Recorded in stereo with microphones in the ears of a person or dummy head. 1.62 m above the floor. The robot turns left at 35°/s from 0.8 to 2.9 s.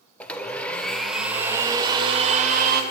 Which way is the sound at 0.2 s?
10° left.